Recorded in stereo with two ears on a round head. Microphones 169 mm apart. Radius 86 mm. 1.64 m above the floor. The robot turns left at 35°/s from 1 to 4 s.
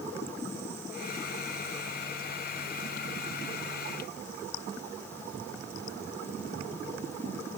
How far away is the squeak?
No squeak in this recording.